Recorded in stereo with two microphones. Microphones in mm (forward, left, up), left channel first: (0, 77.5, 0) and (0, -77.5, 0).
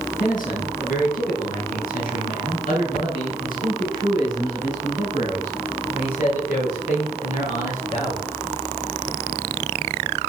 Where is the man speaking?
65° left (ahead or behind), 3 m; by 8.2 s 60° left (ahead or behind), 7.5 m.